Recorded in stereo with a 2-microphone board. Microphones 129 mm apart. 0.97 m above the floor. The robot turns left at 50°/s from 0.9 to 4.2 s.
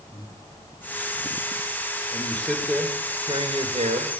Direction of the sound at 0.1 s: 30° left (ahead or behind).